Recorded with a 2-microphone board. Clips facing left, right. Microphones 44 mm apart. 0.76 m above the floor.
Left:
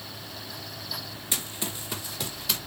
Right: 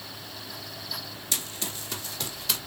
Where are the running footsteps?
25° left (ahead or behind), 2.5 m; by 2.6 s 5° left (ahead or behind), 2.5 m.